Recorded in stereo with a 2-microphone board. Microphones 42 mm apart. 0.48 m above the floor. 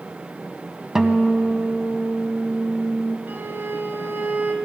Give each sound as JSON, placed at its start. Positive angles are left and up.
{"t": 0.9, "sound": "a guitar", "side_deg": -10, "distance_m": 0.8}
{"t": 3.3, "sound": "a violin", "side_deg": -55, "distance_m": 1.0}